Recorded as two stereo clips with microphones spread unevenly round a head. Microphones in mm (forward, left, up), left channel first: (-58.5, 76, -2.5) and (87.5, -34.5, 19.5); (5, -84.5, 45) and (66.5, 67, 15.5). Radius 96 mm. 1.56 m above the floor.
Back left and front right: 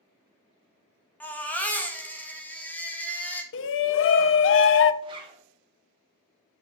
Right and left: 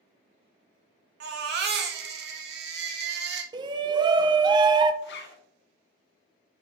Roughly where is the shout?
Behind left.